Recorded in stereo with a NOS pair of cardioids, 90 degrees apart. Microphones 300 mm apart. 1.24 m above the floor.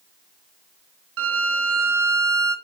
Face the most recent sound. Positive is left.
turn(degrees=-50)